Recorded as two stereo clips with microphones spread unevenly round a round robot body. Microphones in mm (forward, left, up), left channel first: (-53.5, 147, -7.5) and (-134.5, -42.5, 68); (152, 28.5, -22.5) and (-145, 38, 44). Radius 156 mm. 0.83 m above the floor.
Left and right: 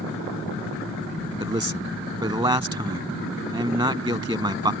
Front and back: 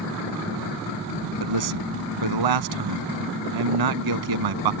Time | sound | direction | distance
1.4 | a man speaking | straight behind | ?